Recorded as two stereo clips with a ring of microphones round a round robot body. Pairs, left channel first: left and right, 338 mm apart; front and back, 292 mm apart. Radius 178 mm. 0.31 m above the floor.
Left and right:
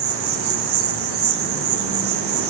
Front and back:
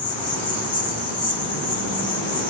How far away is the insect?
About 2 m.